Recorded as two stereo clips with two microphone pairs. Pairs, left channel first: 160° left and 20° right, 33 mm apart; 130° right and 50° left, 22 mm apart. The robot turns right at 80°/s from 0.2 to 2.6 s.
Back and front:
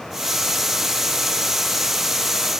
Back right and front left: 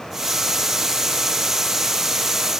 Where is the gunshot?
No gunshot in this recording.